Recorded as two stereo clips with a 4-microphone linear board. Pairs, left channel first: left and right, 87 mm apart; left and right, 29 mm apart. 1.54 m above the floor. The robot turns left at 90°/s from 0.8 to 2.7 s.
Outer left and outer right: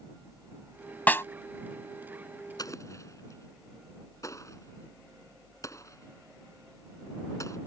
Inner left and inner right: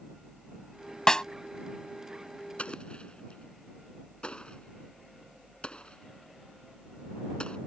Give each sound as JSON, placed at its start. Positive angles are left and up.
{"t": 1.1, "sound": "a snare drum", "side_deg": 20}
{"t": 2.6, "sound": "an explosion", "side_deg": 45}